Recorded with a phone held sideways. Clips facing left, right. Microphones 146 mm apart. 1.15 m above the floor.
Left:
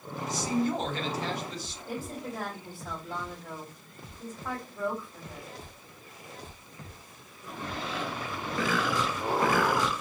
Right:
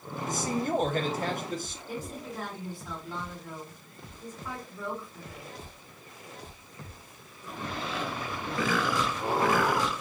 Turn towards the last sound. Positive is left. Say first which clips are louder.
# left 3 dB
turn(degrees=60)  # may be behind; listen again after turning